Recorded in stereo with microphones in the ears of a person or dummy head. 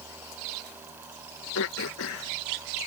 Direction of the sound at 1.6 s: 80° left.